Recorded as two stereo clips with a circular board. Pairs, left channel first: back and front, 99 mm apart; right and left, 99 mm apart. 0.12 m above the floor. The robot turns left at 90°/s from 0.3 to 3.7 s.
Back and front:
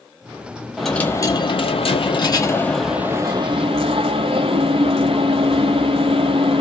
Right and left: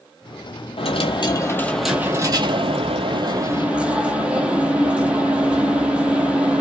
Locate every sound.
0.8 s a dropped coin: 85° right, 0.7 m; by 6.6 s 10° left, 0.7 m